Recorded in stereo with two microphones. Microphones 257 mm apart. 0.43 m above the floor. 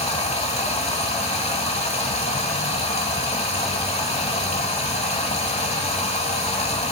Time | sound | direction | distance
0.0 | running water | 25° left (ahead or behind) | 0.8 m